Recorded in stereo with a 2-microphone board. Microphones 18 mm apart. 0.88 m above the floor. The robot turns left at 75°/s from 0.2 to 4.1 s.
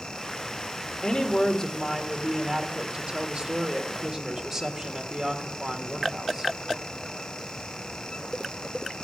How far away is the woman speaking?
About 1.5 m.